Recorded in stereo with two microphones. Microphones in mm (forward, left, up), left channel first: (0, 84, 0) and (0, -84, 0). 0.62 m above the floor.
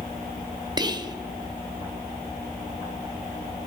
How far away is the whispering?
About 0.6 m.